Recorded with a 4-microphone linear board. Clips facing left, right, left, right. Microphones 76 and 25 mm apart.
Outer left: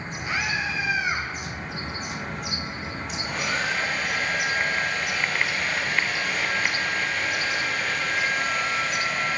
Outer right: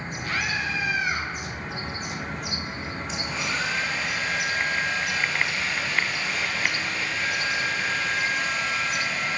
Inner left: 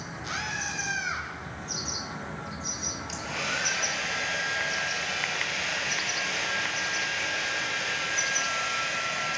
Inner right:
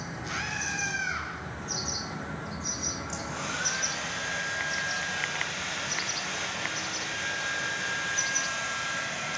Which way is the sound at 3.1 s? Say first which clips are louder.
Outer left 2 dB, inner left 3 dB; 55° left (ahead or behind).